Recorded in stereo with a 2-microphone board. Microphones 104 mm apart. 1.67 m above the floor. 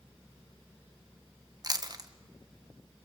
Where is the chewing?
40° right (ahead or behind), 1.2 m.